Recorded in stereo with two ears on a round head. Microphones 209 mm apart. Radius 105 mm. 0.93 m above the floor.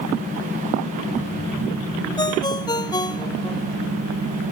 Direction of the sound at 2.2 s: 20° left (ahead or behind).